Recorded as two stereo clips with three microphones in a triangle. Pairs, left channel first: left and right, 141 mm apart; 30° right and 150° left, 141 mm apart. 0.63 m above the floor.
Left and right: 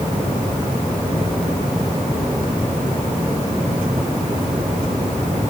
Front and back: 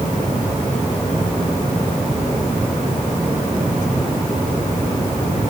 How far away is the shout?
I don't hear a shout.